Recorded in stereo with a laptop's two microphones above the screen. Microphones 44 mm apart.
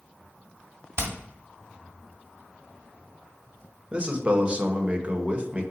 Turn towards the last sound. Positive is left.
turn(degrees=-30)  # may be behind; listen again after turning